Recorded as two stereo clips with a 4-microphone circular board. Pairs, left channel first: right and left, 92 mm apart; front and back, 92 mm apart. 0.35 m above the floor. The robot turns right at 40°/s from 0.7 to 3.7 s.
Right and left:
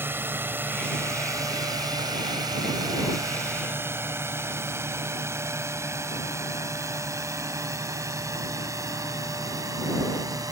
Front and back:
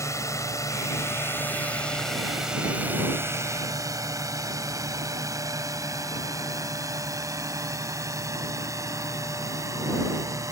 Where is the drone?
35° left; by 10.5 s 130° left.